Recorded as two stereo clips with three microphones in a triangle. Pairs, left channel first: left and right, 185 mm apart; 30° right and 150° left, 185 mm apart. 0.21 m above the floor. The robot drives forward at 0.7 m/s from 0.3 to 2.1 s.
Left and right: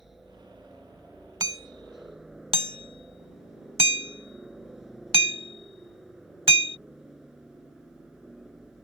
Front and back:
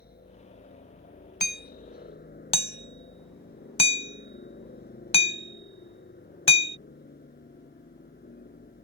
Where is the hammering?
20° right; by 6.8 s 60° right.